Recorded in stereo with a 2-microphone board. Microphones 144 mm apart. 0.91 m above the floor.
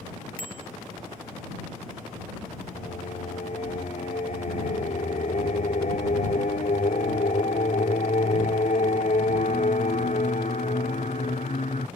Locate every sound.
0.4 s a bicycle bell: 90° right
2.7 s singing: 65° left (ahead or behind)